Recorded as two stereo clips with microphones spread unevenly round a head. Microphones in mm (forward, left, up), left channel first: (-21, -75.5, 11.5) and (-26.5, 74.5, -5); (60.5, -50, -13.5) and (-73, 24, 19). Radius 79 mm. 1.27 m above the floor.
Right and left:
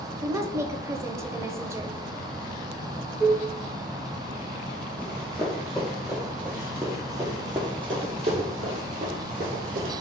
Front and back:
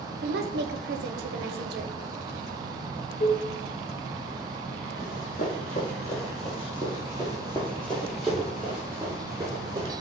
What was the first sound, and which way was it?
A woman speaking, 155° left.